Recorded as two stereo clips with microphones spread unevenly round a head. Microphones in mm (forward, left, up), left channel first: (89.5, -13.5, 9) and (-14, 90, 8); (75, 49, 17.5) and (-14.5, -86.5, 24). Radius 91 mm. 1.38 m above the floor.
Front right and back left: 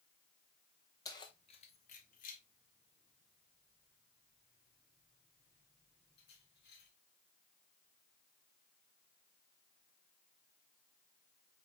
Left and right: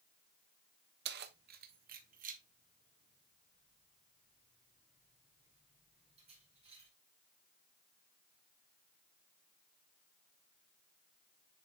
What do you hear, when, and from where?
1.1 s keys jangling: 115° right, 0.7 m; by 6.9 s 75° right, 3.5 m